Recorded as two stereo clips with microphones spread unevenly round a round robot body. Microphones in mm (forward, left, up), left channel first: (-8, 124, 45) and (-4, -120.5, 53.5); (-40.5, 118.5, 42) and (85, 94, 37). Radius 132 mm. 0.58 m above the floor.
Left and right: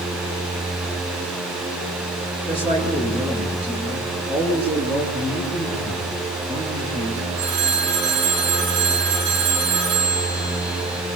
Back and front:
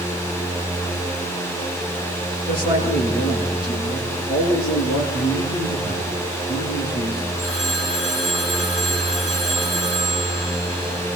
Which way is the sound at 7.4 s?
95° right.